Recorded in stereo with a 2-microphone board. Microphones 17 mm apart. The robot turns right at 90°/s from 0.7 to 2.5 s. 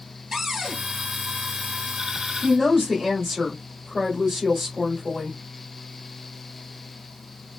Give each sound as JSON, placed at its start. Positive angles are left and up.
{"t": 0.3, "sound": "a cupboard door", "side_deg": -30, "distance_m": 1.9}
{"t": 2.4, "sound": "a woman speaking", "side_deg": -15, "distance_m": 1.9}